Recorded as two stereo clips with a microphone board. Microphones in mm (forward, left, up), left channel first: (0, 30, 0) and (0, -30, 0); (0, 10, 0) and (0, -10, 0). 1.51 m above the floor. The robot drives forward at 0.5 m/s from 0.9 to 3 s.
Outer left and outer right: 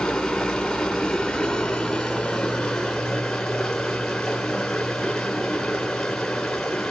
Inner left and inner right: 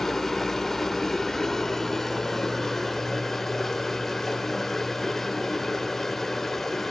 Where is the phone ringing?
No phone ringing in this recording.